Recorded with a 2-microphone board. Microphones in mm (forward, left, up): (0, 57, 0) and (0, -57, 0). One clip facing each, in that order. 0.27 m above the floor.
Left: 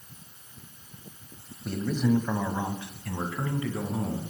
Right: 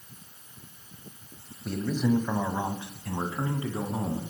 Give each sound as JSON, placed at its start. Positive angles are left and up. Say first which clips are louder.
{"t": 1.6, "sound": "a man speaking", "louder": "even", "side_deg": 0, "distance_m": 1.1}